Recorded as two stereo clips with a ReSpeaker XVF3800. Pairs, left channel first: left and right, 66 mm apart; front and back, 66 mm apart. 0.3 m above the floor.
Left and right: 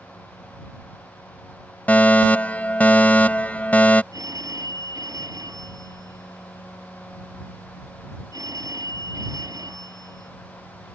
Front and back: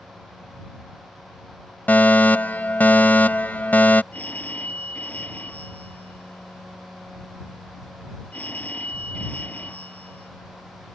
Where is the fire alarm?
40° left.